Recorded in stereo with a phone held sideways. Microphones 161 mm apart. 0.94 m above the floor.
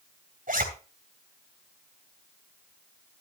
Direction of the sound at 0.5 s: 55° right (ahead or behind).